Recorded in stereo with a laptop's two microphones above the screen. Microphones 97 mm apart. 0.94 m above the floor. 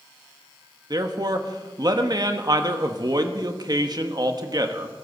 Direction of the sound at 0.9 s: 45° right (ahead or behind).